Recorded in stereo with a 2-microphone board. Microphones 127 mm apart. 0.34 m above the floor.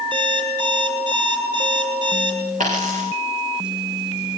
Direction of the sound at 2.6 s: 75° right (ahead or behind).